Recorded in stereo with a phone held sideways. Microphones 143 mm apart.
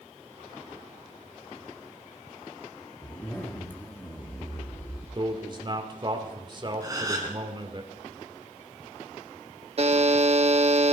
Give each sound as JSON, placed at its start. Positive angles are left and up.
{"t": 3.0, "sound": "a zipper", "side_deg": 15, "distance_m": 1.8}
{"t": 5.2, "sound": "a man speaking", "side_deg": -35, "distance_m": 2.0}
{"t": 6.8, "sound": "a gasp", "side_deg": -25, "distance_m": 3.0}
{"t": 9.8, "sound": "a buzzer", "side_deg": -45, "distance_m": 1.1}